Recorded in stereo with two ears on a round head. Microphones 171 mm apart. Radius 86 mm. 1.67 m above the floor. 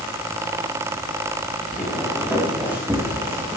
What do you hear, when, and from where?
1.7 s footsteps: 5° right (ahead or behind), 7 m; by 3.6 s 15° right (ahead or behind), 5.5 m